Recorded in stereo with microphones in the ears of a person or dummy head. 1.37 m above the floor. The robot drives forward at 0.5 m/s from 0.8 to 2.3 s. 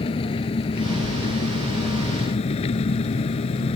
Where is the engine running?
30° left (ahead or behind); by 3.8 s 35° left (ahead or behind).